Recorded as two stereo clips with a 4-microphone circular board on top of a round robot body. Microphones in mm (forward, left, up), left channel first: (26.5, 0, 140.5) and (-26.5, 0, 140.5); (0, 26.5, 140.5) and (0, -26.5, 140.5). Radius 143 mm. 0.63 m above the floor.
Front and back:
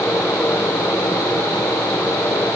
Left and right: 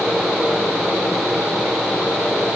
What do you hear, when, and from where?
Only background noise.